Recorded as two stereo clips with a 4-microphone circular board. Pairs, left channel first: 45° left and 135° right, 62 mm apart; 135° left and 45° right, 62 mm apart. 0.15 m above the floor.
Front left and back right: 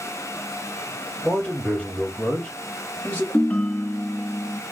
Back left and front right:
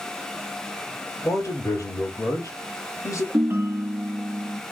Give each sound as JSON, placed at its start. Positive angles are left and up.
{"t": 1.2, "sound": "a man speaking", "azimuth_deg": 120, "distance_m": 4.5}
{"t": 3.3, "sound": "a ringtone", "azimuth_deg": -20, "distance_m": 0.7}